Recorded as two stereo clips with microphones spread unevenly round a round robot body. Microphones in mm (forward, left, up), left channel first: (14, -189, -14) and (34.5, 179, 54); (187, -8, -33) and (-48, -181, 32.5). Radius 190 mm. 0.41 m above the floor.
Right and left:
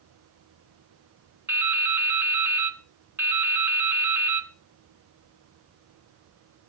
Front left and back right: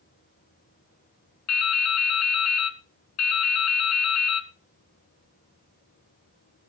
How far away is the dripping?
About 1.7 m.